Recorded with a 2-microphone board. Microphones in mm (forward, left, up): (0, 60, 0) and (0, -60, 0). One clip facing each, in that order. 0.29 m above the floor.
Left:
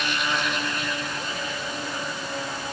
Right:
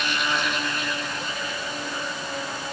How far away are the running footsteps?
I don't hear running footsteps.